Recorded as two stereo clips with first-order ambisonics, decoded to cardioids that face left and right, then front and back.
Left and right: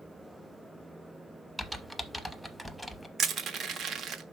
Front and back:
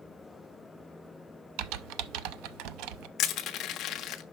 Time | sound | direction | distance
1.6 | typing on a keyboard | straight behind | 0.6 m
3.2 | crushing | 40° right | 0.8 m